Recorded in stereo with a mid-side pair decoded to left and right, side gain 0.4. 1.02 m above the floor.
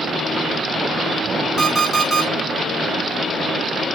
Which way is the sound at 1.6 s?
35° right.